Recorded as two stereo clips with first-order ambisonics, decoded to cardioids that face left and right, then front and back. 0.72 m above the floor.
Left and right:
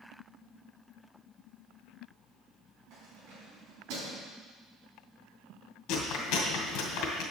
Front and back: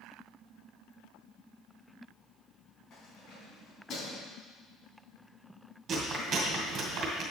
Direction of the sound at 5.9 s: 125° left.